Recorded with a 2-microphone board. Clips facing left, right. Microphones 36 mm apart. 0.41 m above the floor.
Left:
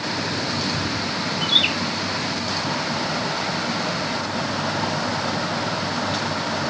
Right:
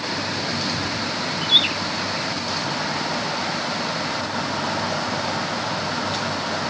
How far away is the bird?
About 5.5 m.